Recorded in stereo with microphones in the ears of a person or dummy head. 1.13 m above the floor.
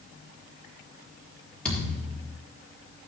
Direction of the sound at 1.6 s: 5° left (ahead or behind).